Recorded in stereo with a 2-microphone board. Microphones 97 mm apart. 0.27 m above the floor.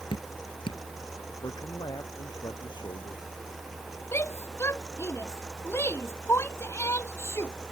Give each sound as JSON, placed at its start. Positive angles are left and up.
{"t": 0.1, "sound": "dripping", "side_deg": 60}
{"t": 1.4, "sound": "a man speaking", "side_deg": 45}
{"t": 4.1, "sound": "a shout", "side_deg": 25}